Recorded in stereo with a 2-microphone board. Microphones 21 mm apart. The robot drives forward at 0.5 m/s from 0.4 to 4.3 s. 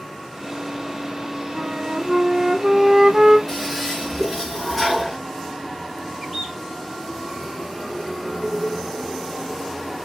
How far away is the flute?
About 0.8 m.